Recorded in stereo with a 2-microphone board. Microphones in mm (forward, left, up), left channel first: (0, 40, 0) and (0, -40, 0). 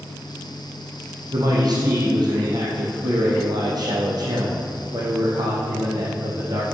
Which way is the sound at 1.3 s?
55° right (ahead or behind).